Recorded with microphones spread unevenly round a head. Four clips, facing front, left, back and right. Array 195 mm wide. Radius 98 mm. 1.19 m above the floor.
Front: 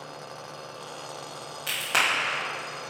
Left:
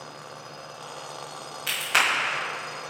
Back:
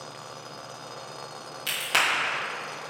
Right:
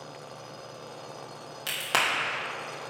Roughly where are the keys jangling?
No keys jangling in this recording.